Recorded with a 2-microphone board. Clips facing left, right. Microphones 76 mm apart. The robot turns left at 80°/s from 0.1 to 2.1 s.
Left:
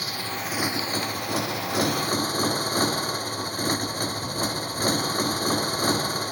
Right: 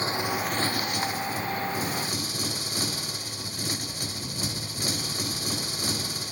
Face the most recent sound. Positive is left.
turn(degrees=50)